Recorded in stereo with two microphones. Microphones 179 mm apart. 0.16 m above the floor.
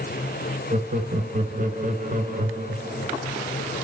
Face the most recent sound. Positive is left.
turn(degrees=-50)  # may be behind; listen again after turning